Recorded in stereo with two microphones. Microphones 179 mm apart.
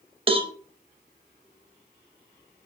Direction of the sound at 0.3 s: 30° right (ahead or behind).